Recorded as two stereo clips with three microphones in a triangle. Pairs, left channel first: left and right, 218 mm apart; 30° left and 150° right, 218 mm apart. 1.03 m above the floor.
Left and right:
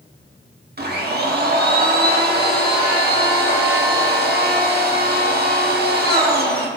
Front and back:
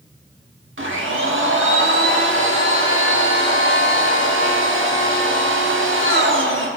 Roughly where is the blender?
Behind right.